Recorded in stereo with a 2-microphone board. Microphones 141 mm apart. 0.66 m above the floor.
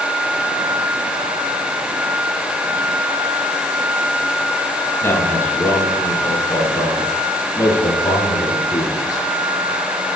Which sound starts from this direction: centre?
A man speaking, at 5.0 s.